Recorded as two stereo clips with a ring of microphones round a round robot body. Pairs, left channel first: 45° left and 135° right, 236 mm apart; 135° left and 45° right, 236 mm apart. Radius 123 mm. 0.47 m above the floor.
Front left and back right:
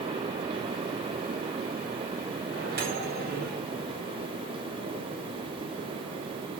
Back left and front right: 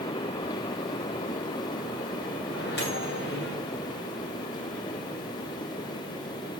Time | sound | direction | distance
2.5 | a microwave | 175° left | 2 m